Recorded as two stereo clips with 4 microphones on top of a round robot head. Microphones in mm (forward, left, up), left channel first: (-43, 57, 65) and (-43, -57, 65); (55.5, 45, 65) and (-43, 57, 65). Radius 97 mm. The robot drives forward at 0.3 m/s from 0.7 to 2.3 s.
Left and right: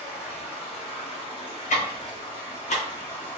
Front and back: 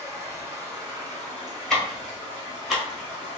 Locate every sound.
0.0 s running water: 120° left, 1.6 m; by 3.4 s 135° left, 1.8 m
1.7 s ticking: 80° left, 1.2 m; by 3.4 s 85° left, 1.2 m